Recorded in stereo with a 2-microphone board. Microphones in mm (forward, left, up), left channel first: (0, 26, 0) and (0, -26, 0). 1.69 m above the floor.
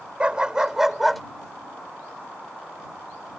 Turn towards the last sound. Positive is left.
turn(degrees=0)  # may be behind; listen again after turning